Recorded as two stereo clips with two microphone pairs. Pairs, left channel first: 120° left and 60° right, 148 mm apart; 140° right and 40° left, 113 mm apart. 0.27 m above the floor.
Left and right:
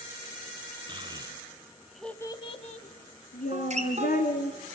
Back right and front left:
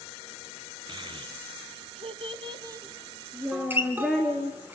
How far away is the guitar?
About 3 m.